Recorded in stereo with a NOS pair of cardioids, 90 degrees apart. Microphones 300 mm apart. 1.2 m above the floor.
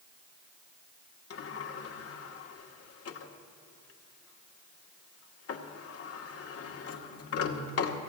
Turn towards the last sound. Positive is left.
turn(degrees=50)